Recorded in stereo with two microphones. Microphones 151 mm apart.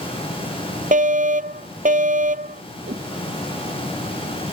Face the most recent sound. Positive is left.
turn(degrees=-80)